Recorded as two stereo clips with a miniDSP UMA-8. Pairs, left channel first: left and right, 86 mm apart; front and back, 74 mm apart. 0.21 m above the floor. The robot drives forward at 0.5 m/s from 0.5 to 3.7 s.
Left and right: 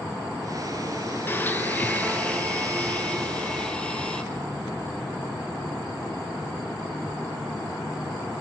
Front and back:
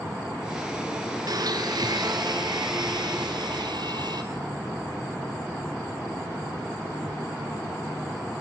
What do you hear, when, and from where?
1.3 s a blender: 155° left, 0.9 m; by 4.2 s 170° left, 2 m